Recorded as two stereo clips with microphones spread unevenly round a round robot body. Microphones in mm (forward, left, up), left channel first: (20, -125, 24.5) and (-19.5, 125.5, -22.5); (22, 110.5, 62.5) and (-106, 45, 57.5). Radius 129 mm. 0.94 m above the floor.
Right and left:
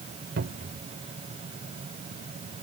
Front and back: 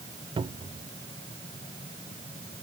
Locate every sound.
0.4 s a cupboard door: 155° left